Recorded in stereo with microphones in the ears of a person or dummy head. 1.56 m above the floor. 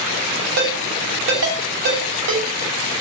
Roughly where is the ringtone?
Right.